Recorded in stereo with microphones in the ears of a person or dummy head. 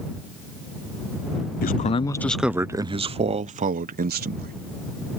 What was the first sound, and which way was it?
A man speaking, 45° left (ahead or behind).